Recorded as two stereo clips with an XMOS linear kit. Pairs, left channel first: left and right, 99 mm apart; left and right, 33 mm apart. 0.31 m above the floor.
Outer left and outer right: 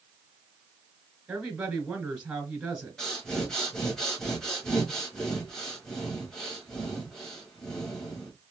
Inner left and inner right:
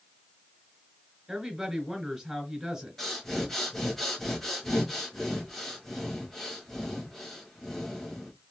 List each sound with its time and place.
1.3 s a woman speaking: 20° right (ahead or behind), 1.3 m
3.0 s breathing: 5° left (ahead or behind), 1.2 m